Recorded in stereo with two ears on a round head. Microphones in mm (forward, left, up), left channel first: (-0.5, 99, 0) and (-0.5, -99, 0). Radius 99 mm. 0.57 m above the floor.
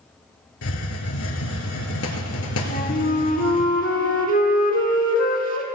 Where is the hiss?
75° left (ahead or behind), 1.7 m.